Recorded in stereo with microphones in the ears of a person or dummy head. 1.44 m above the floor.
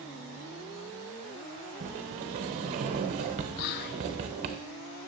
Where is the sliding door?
35° right (ahead or behind), 0.7 m.